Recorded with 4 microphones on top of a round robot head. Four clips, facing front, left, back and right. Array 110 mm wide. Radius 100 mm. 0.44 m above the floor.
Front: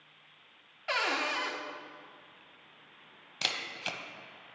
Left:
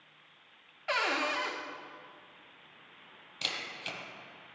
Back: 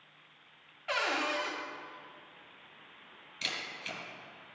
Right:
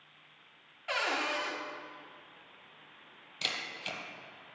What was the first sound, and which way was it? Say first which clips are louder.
A cupboard door: left 2 dB, even; 50° left.